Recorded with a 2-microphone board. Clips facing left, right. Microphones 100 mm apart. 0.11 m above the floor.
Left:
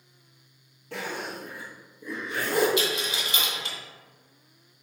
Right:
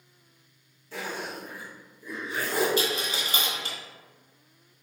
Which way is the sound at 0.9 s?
65° left (ahead or behind).